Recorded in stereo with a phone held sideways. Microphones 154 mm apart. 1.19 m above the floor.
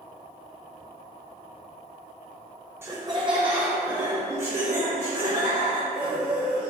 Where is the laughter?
15° right (ahead or behind), 0.5 m; by 6.7 s 60° right (ahead or behind), 2.5 m.